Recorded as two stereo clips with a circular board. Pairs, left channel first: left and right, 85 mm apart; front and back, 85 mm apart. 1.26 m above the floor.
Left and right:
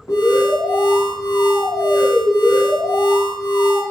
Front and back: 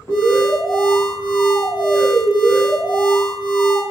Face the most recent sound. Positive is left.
turn(degrees=50)